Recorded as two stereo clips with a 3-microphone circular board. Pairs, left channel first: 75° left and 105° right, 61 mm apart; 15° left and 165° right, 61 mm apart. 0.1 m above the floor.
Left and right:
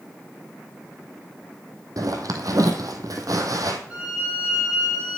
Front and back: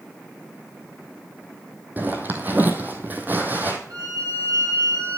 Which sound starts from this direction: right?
A zipper, at 2.0 s.